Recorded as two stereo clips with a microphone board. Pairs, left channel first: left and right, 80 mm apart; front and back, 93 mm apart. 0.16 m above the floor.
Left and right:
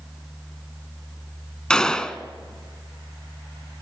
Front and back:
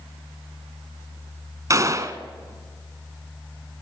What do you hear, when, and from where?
1.7 s a gunshot: 165° left, 1.0 m